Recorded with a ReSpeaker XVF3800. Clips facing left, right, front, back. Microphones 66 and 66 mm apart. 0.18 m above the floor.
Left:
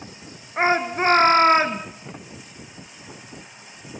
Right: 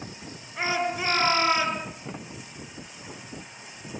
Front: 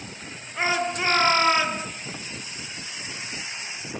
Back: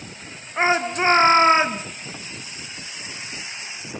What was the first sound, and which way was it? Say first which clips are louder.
A shout: left 7 dB, back 5 dB; 125° left.